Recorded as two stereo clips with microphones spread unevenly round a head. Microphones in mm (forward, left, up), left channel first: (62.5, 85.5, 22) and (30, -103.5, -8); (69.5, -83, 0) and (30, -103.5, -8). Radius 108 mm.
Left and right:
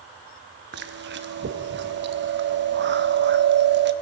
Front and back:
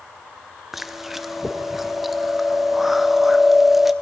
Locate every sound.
0.7 s chewing: 65° right, 0.6 m